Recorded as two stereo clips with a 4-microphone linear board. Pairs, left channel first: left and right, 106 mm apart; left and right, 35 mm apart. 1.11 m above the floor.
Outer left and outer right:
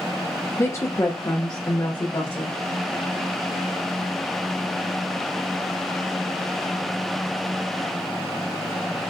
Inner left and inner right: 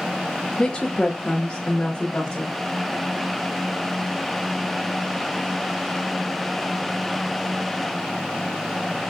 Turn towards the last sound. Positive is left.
turn(degrees=40)  # may be behind; listen again after turning